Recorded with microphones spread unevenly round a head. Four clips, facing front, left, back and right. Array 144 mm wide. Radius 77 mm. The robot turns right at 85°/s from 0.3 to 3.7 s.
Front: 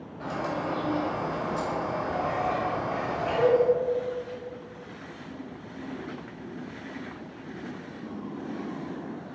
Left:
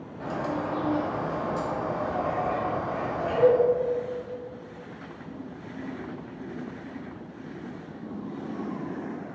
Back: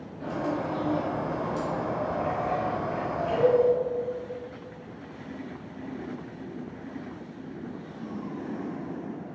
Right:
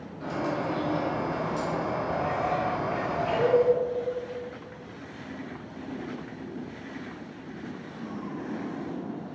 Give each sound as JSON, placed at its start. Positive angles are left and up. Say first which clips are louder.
{"t": 0.2, "sound": "a bird", "louder": "even, back 1 dB", "azimuth_deg": 45, "distance_m": 1.9}